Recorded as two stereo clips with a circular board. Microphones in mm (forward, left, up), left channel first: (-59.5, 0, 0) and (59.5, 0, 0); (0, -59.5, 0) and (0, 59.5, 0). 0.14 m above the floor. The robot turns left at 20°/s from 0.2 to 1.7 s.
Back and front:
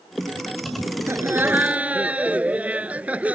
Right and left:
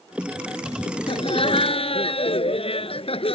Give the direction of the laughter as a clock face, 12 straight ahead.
2 o'clock.